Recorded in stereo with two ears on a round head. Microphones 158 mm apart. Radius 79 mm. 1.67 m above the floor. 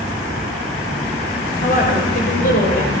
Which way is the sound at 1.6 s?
55° left (ahead or behind).